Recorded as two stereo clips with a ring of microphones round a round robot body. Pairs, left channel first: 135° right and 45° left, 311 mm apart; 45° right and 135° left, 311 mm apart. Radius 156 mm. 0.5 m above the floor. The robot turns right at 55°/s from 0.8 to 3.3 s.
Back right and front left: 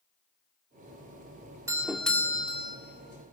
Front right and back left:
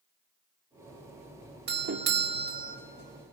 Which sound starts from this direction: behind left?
A doorbell, at 1.7 s.